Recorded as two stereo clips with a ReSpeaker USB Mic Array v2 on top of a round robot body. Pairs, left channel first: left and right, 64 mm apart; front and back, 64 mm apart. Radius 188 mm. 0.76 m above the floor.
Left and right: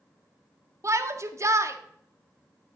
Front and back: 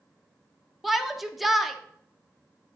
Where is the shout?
90° right, 1.1 m.